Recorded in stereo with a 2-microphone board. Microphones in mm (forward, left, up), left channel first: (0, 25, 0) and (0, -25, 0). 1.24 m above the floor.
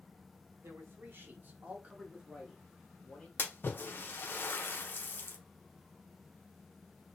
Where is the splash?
45° left (ahead or behind), 0.6 m.